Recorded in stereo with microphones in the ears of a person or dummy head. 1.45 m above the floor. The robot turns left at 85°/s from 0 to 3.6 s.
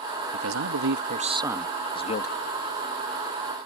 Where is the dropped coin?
I don't hear a dropped coin.